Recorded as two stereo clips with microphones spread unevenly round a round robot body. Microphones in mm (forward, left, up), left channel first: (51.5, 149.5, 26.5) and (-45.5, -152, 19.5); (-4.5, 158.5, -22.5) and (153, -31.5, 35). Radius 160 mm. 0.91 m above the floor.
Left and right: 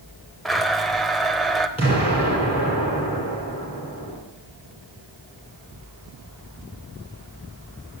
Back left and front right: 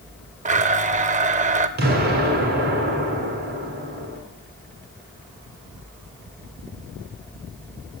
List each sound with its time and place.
0.5 s a blender: 15° right, 0.8 m
1.8 s an explosion: straight ahead, 6 m